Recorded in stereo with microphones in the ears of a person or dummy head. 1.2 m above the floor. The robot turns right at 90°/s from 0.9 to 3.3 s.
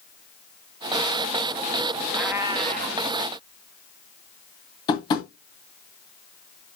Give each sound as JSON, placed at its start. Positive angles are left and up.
{"t": 2.1, "sound": "a cat meowing", "azimuth_deg": -175, "distance_m": 0.8}
{"t": 4.9, "sound": "tapping", "side_deg": 30, "distance_m": 1.6}